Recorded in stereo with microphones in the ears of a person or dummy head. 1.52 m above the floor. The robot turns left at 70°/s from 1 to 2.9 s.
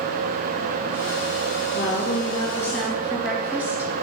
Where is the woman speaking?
75° left, 2.5 m; by 3.9 s 5° right, 2.5 m.